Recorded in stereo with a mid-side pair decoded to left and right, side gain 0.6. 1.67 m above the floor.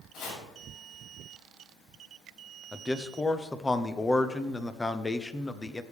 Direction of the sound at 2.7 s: 15° left.